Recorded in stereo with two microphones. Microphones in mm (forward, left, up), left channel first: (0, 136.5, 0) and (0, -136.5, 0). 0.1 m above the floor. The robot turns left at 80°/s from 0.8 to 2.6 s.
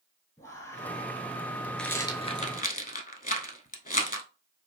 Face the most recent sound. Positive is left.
turn(degrees=30)  # may be behind; listen again after turning